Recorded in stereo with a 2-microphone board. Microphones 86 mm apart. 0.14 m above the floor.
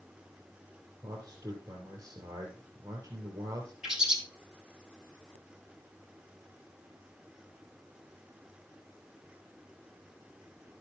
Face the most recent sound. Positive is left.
turn(degrees=-5)  # may be behind; listen again after turning